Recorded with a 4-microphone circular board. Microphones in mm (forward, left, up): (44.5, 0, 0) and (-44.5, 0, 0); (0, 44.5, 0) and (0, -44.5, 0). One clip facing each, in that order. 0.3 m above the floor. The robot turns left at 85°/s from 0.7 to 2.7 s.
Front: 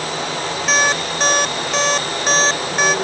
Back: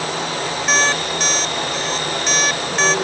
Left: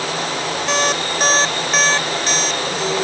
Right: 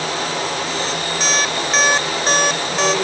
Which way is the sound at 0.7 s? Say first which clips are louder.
Front 1 dB, left 3 dB; 90° left.